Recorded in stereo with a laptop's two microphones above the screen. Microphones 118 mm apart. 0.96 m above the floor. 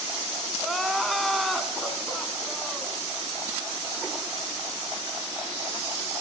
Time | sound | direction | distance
0.6 | crying | centre (ahead or behind) | 1.5 m